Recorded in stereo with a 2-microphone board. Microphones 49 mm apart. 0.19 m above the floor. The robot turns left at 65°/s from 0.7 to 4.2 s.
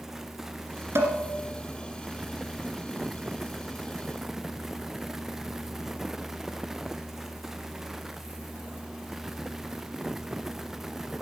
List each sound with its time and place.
0.9 s dishes clattering: 60° right (ahead or behind), 1.8 m; by 1.2 s 65° right (ahead or behind), 1.8 m